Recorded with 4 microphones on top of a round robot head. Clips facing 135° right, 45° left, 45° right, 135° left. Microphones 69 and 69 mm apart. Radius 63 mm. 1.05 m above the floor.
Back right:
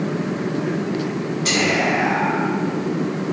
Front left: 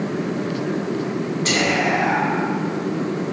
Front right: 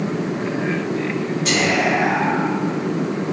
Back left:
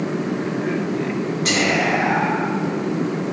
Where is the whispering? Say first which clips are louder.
Back right 1 dB, front right 1 dB; 95° left, 1.6 m.